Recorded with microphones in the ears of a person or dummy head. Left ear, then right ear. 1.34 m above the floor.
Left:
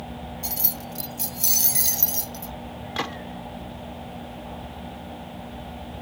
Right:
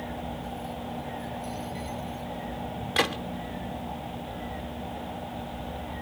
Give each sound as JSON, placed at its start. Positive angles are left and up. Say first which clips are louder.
{"t": 0.4, "sound": "keys jangling", "louder": "left 2 dB", "side_deg": 75}
{"t": 3.0, "sound": "a gunshot", "louder": "right 4 dB", "side_deg": -10}